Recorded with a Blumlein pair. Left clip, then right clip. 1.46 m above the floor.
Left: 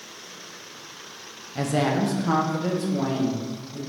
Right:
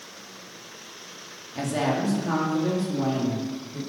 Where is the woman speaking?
5° left, 0.8 m; by 3.8 s 35° left, 2 m.